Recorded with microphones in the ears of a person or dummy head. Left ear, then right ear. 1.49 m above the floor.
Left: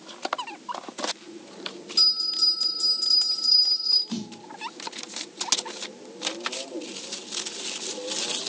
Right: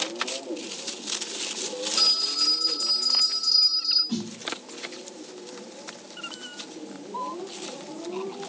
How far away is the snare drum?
About 2 m.